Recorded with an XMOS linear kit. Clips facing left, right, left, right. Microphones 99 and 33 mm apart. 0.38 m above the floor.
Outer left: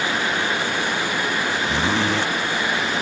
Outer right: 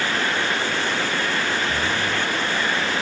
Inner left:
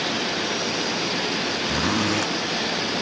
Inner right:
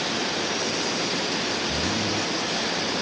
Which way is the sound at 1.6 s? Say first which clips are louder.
Outer left 3 dB, inner left 3 dB; 85° left.